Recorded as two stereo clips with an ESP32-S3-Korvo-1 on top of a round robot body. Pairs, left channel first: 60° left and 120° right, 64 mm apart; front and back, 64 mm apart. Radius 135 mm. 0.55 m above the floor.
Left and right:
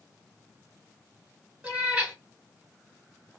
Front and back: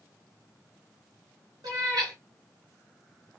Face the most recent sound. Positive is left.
turn(degrees=170)